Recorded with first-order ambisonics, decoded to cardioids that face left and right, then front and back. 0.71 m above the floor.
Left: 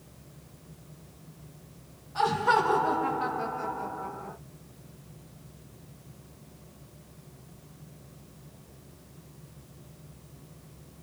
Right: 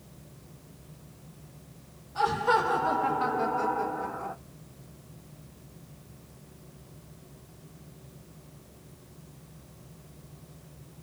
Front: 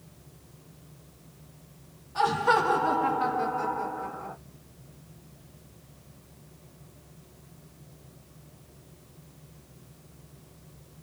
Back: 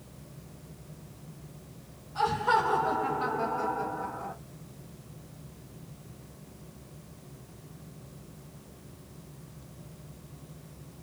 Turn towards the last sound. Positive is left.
turn(degrees=-110)